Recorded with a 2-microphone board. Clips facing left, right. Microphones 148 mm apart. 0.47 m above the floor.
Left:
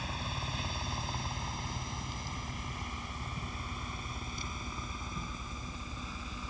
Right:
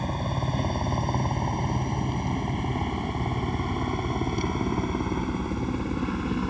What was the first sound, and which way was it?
A helicopter, 50° right (ahead or behind).